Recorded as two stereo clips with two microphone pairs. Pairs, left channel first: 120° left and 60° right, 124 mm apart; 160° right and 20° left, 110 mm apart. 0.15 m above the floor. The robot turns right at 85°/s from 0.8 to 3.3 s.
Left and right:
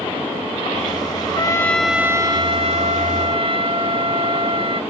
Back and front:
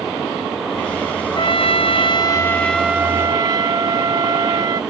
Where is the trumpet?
165° left; by 4.8 s 30° right.